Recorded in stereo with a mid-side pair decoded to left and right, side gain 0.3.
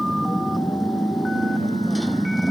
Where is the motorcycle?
15° right.